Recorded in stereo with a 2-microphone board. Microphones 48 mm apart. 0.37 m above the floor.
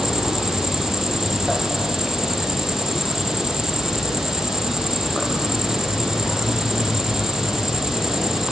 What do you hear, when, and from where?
0.0 s an insect: 10° right (ahead or behind), 2.5 m